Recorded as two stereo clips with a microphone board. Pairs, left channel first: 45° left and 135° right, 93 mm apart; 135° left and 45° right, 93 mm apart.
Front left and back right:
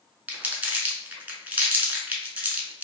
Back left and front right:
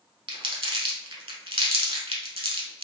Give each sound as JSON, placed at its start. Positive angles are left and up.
{"t": 0.3, "sound": "crumpling", "azimuth_deg": -65, "distance_m": 0.8}